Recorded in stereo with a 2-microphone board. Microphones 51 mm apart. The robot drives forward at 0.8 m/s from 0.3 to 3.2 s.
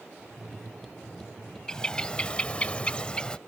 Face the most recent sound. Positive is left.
turn(degrees=20)  # may be behind; listen again after turning